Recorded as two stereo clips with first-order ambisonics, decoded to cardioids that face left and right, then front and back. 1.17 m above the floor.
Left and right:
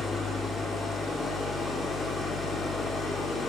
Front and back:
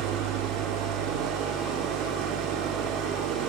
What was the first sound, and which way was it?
An engine running, 165° left.